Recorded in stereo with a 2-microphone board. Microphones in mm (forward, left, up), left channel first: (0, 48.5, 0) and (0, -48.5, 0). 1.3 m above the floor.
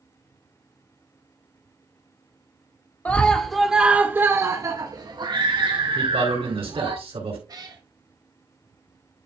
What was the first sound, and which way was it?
A scream, 15° left (ahead or behind).